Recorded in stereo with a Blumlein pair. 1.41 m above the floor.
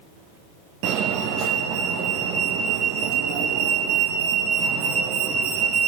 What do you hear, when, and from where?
0.8 s a fire alarm: 40° right, 3 m